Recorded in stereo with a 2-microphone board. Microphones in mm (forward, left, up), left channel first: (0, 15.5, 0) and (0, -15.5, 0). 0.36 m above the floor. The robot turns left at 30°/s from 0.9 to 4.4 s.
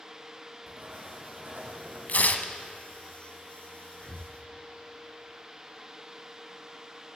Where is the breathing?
15° left (ahead or behind), 0.7 m; by 4.3 s 25° left (ahead or behind), 0.7 m.